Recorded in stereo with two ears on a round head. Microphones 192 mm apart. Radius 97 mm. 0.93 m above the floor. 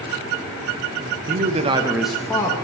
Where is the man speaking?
45° right (ahead or behind), 0.7 m; by 2.6 s 20° left (ahead or behind), 0.9 m.